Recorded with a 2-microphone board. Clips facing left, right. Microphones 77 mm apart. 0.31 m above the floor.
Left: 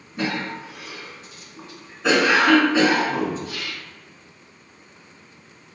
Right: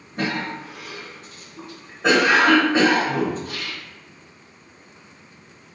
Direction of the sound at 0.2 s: 45° right (ahead or behind).